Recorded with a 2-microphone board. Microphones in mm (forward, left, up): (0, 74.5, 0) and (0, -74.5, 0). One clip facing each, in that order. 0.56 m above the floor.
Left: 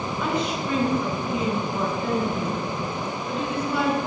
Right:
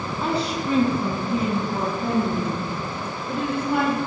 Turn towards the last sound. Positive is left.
turn(degrees=-55)  # may be behind; listen again after turning